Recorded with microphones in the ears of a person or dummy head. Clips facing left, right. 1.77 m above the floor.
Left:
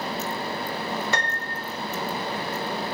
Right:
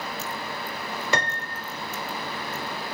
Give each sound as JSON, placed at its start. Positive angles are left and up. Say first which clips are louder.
{"t": 1.1, "sound": "a piano", "louder": "right 1 dB", "side_deg": -65, "distance_m": 0.9}